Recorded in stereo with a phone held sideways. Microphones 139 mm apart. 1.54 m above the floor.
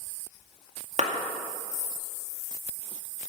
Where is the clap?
60° right (ahead or behind), 1.8 m.